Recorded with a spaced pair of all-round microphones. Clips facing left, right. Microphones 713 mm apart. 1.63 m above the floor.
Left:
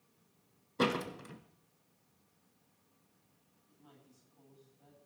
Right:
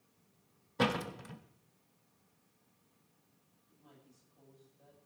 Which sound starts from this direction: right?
A door slam, at 0.8 s.